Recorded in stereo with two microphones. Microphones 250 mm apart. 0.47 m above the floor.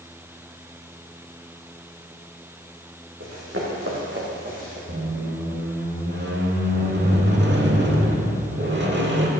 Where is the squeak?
45° right (ahead or behind), 1.0 m.